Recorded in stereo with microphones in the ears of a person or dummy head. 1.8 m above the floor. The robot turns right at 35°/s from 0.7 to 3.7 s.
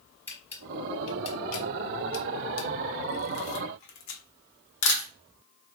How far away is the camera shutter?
About 0.9 m.